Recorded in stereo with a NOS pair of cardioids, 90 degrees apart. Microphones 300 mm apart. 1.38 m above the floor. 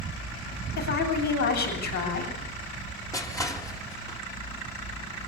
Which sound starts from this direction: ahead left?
A woman speaking, at 0.8 s.